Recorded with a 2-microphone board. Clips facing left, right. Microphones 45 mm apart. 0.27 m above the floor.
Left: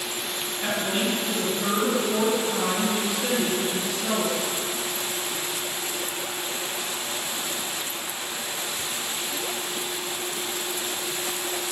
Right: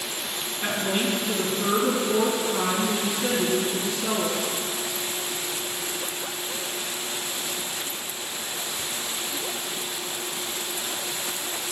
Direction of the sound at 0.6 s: 25° right (ahead or behind).